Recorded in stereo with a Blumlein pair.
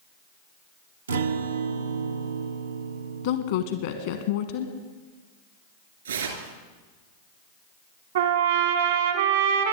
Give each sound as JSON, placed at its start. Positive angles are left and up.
{"t": 1.1, "sound": "a guitar", "azimuth_deg": -70, "distance_m": 0.6}
{"t": 3.2, "sound": "a woman speaking", "azimuth_deg": 55, "distance_m": 1.1}
{"t": 6.0, "sound": "tearing paper", "azimuth_deg": -70, "distance_m": 2.0}
{"t": 8.2, "sound": "a trumpet", "azimuth_deg": -60, "distance_m": 1.3}